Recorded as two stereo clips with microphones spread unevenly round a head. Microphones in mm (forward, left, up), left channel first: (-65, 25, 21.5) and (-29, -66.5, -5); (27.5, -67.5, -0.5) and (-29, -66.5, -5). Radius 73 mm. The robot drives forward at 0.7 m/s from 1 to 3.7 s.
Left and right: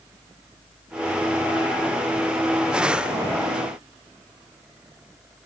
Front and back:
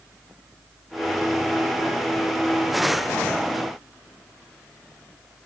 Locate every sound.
Only background noise.